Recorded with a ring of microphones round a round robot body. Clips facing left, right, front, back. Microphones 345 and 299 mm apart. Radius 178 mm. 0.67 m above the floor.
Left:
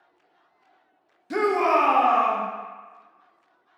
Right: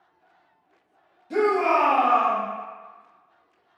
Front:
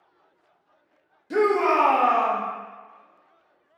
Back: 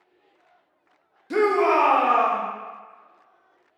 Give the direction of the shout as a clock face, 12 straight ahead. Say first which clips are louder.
Right 1 dB, back 1 dB; 8 o'clock.